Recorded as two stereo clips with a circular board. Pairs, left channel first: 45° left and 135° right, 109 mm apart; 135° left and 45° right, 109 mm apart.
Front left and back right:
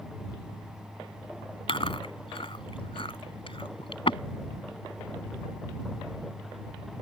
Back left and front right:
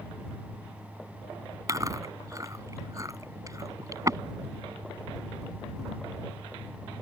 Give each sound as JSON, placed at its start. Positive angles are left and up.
{"t": 1.7, "sound": "chewing", "azimuth_deg": 10}